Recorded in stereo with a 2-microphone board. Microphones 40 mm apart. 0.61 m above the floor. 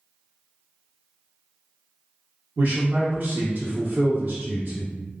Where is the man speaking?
45° right (ahead or behind), 1.0 m.